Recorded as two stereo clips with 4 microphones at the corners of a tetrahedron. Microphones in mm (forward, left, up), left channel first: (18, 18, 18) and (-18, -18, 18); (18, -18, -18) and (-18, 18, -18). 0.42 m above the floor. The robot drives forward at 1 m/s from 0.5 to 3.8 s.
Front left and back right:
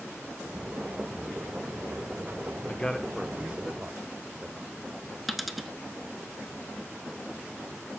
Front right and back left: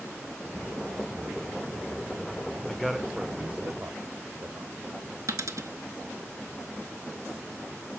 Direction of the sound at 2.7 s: 20° left.